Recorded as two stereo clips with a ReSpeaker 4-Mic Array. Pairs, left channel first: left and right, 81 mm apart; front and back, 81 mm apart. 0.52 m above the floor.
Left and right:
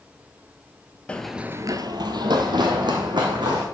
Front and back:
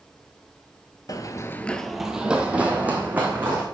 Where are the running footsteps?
20° left, 0.7 m; by 3.6 s 115° right, 3 m.